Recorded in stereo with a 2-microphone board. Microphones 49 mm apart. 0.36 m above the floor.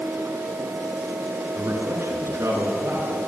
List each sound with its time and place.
1.6 s a man speaking: 60° right (ahead or behind), 5.5 m; by 3.1 s 55° right (ahead or behind), 5.5 m